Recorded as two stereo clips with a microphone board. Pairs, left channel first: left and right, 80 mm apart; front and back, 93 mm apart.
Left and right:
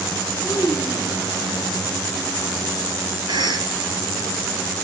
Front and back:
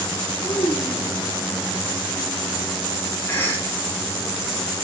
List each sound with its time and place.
0.4 s a child speaking: 5° left, 6.5 m
3.3 s a cough: 65° right, 6.5 m